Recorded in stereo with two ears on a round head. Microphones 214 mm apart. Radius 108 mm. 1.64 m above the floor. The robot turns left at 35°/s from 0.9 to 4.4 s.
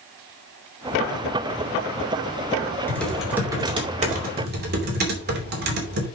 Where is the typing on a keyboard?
10° left, 3 m; by 6.1 s 45° right, 3 m.